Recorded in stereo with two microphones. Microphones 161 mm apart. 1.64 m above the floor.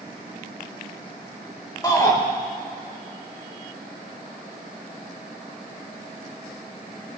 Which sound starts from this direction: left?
A shout, at 1.8 s.